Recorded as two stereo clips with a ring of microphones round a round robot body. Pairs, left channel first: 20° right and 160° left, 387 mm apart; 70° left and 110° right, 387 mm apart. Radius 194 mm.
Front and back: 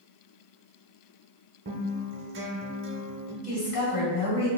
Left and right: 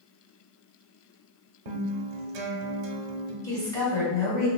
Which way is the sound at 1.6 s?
140° right.